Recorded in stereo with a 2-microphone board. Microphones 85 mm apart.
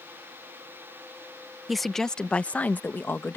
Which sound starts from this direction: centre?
A woman speaking, at 1.7 s.